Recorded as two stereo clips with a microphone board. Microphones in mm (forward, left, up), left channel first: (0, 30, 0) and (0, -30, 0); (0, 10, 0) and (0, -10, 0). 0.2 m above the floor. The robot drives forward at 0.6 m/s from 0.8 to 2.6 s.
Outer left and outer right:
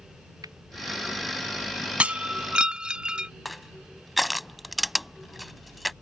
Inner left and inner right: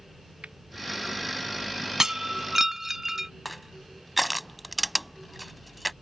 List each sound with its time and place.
0.4 s a finger snap: 75° right (ahead or behind)
2.0 s breaking glass: 20° right (ahead or behind); by 3.3 s 15° right (ahead or behind)
3.5 s crushing: centre (ahead or behind)